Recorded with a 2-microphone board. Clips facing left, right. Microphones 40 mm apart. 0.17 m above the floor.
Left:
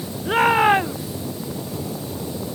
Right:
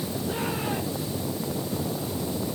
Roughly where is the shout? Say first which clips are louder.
Left 16 dB; left.